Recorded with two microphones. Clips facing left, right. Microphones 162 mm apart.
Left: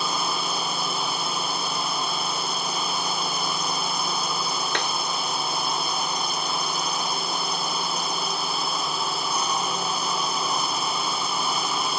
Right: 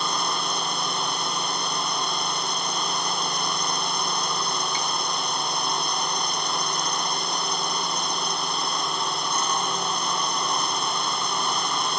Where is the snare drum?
75° left (ahead or behind).